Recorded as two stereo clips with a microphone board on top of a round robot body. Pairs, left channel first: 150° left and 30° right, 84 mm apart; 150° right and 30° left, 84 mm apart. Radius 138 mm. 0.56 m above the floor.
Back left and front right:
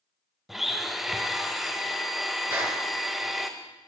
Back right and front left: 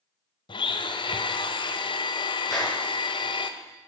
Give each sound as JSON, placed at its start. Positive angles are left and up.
{"t": 0.5, "sound": "a blender", "azimuth_deg": -120, "distance_m": 1.1}
{"t": 2.5, "sound": "a clap", "azimuth_deg": -90, "distance_m": 7.5}